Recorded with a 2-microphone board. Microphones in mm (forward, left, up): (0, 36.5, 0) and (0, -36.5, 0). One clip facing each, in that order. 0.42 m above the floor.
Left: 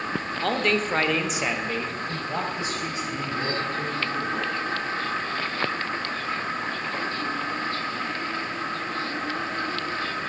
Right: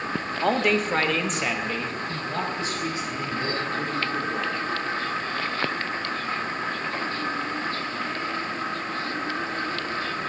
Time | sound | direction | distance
0.4 | a man speaking | 20° right (ahead or behind) | 0.9 m